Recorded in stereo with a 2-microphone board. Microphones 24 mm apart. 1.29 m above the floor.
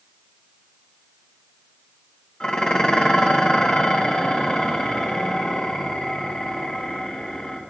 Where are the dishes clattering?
35° left (ahead or behind), 0.8 m.